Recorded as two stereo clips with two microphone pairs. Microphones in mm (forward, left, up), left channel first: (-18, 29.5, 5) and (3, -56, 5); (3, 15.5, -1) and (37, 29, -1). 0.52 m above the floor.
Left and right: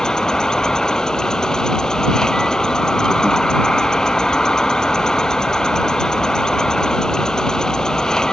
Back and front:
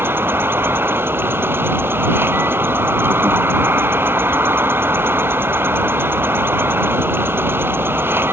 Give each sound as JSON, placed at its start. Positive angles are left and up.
{"t": 0.0, "sound": "an insect", "azimuth_deg": 20}